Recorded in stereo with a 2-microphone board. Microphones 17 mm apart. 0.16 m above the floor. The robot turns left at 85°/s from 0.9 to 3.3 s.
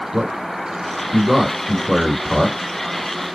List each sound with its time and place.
0.1 s a man speaking: 25° right (ahead or behind), 1.5 m; by 2.6 s 25° left (ahead or behind), 1.5 m